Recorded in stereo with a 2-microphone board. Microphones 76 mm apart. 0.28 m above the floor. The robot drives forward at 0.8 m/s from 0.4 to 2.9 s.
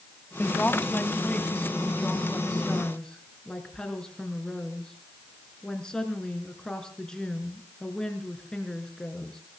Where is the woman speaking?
25° left (ahead or behind), 1.4 m; by 9.4 s 10° left (ahead or behind), 3 m.